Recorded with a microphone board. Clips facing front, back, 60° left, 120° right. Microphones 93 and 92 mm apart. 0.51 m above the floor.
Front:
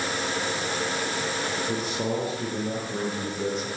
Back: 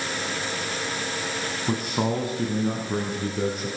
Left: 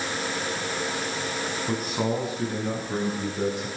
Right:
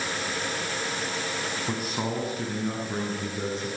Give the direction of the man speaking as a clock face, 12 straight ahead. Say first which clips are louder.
Back 6 dB, left 5 dB; 7 o'clock.